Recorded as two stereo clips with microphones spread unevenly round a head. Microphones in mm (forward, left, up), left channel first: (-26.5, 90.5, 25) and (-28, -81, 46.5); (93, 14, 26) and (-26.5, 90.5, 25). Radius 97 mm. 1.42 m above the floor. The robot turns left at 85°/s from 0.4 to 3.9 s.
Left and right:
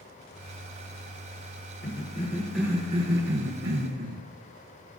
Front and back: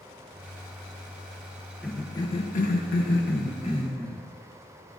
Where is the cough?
60° left, 1.3 m; by 4.3 s 115° right, 1.3 m.